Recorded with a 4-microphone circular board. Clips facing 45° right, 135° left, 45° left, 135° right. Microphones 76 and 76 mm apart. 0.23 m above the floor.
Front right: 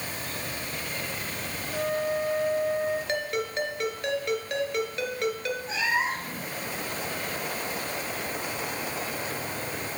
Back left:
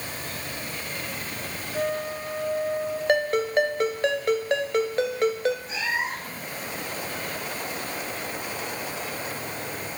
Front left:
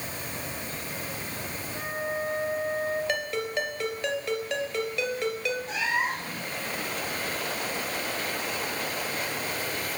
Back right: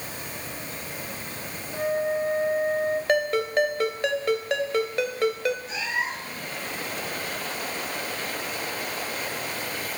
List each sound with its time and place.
1.7 s a flute: 80° right, 3.5 m
3.1 s a ringtone: 175° right, 1.8 m
5.7 s a cat meowing: 5° right, 4.5 m